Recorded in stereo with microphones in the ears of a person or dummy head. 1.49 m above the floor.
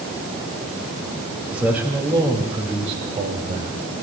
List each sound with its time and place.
1.5 s a man speaking: 5° right (ahead or behind), 2.5 m; by 3.8 s 45° right (ahead or behind), 3 m